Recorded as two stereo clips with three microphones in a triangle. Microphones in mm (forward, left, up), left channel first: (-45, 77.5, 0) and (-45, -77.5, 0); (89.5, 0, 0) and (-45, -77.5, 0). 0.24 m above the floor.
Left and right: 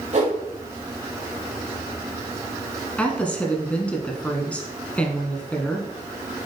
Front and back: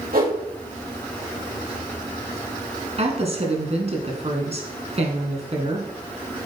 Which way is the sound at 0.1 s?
130° right.